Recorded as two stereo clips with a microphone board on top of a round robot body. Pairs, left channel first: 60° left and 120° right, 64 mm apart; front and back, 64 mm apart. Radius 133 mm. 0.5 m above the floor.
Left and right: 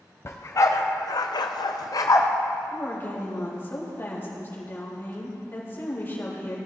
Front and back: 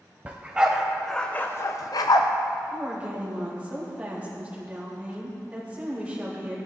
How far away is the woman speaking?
About 3.5 m.